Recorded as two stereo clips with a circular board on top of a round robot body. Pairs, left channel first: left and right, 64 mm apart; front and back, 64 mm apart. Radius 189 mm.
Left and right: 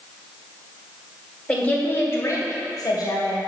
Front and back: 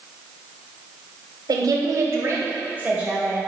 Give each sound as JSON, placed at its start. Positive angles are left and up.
{"t": 1.5, "sound": "a woman speaking", "azimuth_deg": 160, "distance_m": 2.5}